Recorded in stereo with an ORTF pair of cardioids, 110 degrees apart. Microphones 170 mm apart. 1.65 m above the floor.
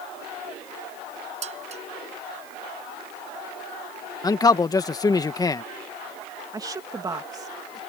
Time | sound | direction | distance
1.4 | dishes clattering | 40° right | ?
4.2 | a man speaking | 20° left | ?
6.5 | a woman speaking | 20° right | ?